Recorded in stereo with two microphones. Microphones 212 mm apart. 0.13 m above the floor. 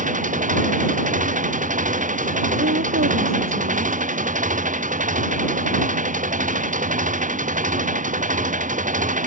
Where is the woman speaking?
70° right (ahead or behind).